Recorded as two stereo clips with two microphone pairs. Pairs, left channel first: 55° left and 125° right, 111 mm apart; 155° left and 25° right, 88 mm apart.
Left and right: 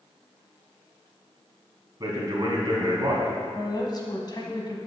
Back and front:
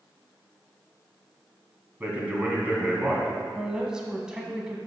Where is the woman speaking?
55° left, 1.2 m.